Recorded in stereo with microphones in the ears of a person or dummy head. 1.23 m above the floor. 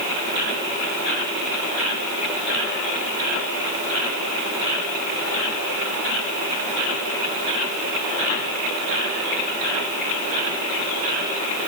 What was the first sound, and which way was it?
Only background noise.